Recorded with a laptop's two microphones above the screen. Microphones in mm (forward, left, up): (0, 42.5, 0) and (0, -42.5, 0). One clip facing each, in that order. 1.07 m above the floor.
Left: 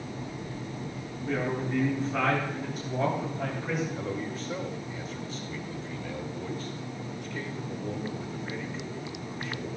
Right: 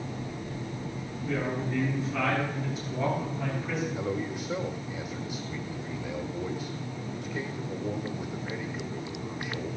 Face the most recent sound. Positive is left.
turn(degrees=-10)  # may be behind; listen again after turning